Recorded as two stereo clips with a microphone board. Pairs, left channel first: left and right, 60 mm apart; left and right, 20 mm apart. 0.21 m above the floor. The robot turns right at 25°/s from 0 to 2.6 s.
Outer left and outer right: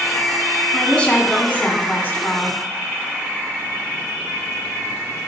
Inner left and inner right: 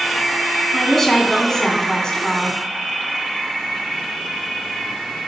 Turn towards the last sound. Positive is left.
turn(degrees=65)